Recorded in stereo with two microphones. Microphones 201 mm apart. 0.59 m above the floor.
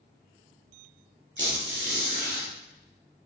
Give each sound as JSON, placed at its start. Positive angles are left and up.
{"t": 1.4, "sound": "a squeak", "side_deg": -65, "distance_m": 1.2}